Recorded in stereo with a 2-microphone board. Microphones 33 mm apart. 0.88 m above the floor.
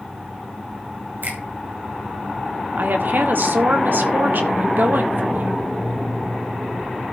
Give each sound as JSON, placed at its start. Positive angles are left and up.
{"t": 1.2, "sound": "a finger snap", "side_deg": -75, "distance_m": 4.5}
{"t": 2.8, "sound": "a woman speaking", "side_deg": -75, "distance_m": 1.7}